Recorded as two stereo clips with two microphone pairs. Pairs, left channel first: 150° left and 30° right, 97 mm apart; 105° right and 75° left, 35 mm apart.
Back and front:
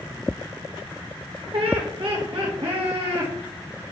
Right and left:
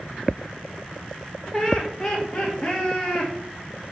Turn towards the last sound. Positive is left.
turn(degrees=-20)